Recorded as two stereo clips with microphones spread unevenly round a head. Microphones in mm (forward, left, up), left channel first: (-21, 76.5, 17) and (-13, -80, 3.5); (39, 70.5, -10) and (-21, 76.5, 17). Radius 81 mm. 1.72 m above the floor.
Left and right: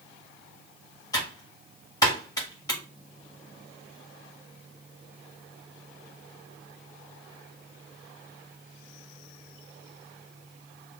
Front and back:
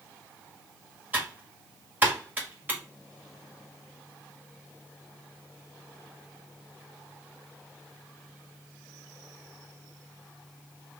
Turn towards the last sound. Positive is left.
turn(degrees=150)